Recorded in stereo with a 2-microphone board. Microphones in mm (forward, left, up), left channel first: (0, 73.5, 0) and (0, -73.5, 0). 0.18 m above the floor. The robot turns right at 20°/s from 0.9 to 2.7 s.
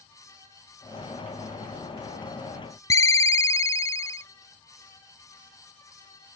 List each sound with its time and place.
2.9 s a ringtone: 20° left (ahead or behind)